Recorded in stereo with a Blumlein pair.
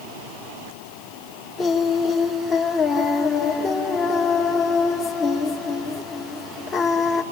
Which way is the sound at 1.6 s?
20° left.